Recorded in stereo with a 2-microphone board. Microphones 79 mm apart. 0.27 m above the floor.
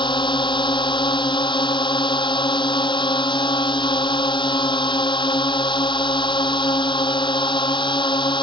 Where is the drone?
80° left.